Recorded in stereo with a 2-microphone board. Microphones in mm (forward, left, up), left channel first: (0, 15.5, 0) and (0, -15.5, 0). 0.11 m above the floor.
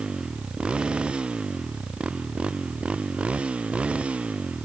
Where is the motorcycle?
30° right (ahead or behind); by 4.7 s 40° right (ahead or behind).